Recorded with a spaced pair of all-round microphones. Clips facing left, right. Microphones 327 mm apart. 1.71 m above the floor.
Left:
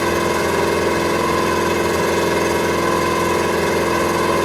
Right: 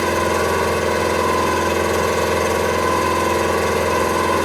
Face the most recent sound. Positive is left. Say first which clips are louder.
# left 1 dB
turn(degrees=80)